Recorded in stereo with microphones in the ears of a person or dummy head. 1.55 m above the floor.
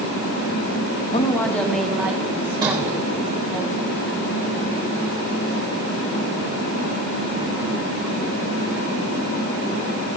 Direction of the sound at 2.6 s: 20° right (ahead or behind).